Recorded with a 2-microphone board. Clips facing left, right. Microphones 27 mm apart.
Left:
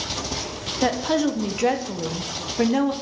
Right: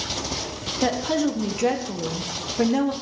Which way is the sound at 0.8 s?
15° left (ahead or behind).